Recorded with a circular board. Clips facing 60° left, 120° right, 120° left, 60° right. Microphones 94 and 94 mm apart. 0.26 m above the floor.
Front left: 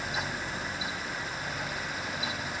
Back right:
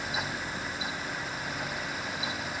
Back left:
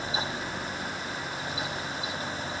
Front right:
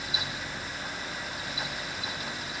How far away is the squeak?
I don't hear a squeak.